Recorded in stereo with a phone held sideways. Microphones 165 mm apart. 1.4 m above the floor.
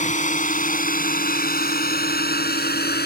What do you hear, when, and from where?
0.0 s a drone: 50° left (ahead or behind); by 3.1 s 75° left (ahead or behind)